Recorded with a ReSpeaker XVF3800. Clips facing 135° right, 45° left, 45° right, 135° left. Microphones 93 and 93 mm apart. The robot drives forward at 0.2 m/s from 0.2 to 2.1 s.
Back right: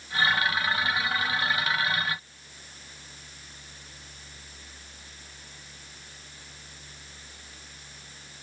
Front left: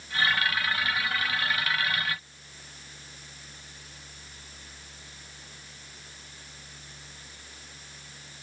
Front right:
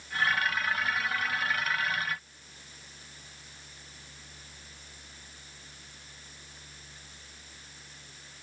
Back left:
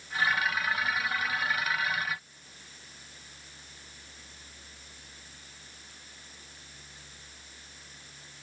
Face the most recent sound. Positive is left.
No sound to turn to.